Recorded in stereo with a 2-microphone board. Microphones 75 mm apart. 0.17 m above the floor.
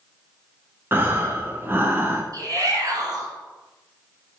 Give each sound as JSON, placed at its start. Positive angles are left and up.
{"t": 0.9, "sound": "breathing", "side_deg": -30, "distance_m": 0.8}
{"t": 2.3, "sound": "a shout", "side_deg": -50, "distance_m": 2.0}